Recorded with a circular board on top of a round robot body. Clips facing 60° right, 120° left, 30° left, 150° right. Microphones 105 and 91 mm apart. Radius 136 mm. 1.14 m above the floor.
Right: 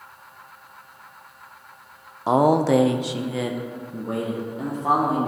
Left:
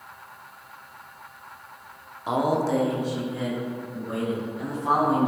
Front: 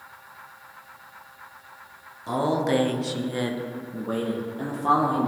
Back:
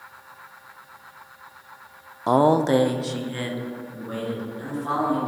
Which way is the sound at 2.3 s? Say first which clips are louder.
Right 6 dB, back 6 dB; 115° right.